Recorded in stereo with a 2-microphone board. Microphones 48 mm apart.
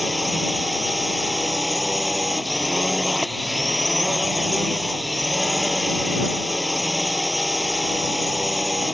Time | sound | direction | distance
0.0 | a drone | centre (ahead or behind) | ?